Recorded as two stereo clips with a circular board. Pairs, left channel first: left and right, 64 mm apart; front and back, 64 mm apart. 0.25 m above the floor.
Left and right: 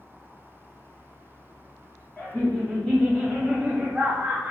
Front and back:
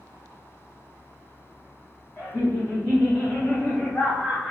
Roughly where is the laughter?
Ahead left.